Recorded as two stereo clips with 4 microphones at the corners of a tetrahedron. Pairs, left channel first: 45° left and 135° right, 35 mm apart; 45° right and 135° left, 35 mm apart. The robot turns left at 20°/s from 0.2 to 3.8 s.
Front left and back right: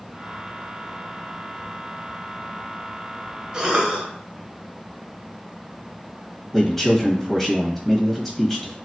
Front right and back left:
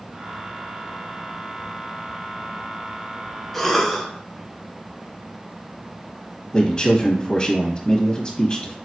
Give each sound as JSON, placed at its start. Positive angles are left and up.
{"t": 3.5, "sound": "a cough", "azimuth_deg": -115, "distance_m": 1.1}
{"t": 6.5, "sound": "a man speaking", "azimuth_deg": -25, "distance_m": 1.0}